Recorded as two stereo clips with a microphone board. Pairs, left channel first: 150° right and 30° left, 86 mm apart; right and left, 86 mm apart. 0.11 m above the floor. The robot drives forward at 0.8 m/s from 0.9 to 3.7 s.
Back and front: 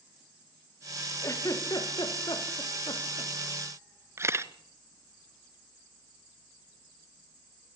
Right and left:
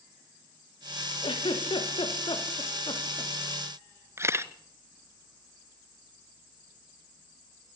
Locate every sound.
1.2 s a giggle: 100° right, 4 m; by 3.3 s 120° right, 4.5 m
4.2 s a camera shutter: 60° left, 0.9 m